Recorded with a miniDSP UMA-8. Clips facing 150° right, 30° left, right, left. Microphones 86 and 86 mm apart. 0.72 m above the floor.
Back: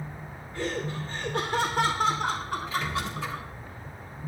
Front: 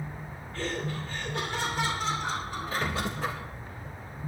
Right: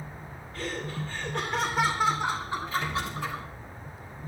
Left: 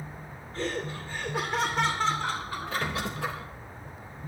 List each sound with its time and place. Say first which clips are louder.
0.5 s laughter: back 2 dB, left 2 dB; 140° left, 2.5 m; by 3.5 s 140° right, 4 m
2.7 s a squeak: front 2 dB, left 1 dB; 70° left, 3.5 m